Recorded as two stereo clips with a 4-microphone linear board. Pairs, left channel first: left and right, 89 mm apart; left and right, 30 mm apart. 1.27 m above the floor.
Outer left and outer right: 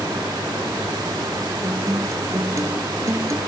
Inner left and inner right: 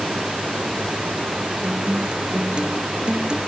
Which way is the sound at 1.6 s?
35° right (ahead or behind).